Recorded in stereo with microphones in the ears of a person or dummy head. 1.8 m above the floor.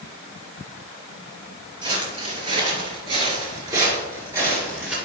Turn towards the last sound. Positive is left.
turn(degrees=-15)  # may be behind; listen again after turning